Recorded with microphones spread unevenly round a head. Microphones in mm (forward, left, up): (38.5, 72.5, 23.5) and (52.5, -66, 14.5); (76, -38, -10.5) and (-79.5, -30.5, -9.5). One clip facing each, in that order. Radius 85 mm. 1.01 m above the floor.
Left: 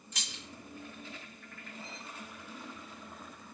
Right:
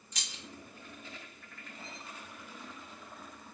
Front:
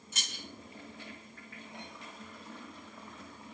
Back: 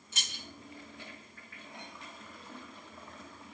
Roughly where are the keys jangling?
Ahead left.